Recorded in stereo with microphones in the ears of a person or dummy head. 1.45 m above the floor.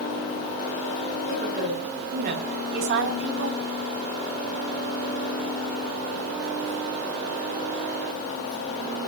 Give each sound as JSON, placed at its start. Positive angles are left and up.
{"t": 1.3, "sound": "a woman speaking", "side_deg": -35, "distance_m": 6.0}